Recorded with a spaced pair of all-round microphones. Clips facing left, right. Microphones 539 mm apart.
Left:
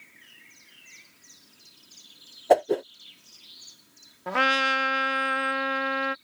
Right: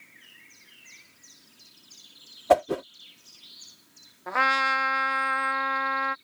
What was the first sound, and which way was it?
A whoosh, 30° right (ahead or behind).